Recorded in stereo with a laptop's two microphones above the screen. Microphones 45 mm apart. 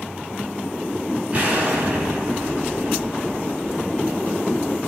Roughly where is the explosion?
Right.